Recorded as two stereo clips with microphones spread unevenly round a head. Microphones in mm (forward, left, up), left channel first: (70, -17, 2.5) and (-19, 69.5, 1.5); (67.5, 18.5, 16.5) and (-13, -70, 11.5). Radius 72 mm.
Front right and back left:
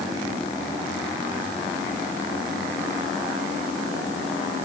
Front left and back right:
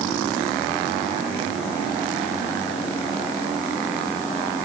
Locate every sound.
Only background noise.